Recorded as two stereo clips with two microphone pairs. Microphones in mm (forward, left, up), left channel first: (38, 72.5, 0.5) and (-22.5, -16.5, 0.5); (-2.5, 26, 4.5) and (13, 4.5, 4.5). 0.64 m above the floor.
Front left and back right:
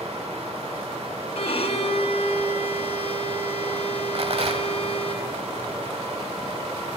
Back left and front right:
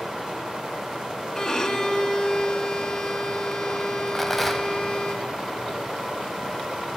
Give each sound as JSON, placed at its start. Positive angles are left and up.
{"t": 0.0, "sound": "running water", "azimuth_deg": -115, "distance_m": 2.0}
{"t": 1.4, "sound": "a violin", "azimuth_deg": 65, "distance_m": 1.2}
{"t": 4.2, "sound": "a rattle", "azimuth_deg": -145, "distance_m": 1.0}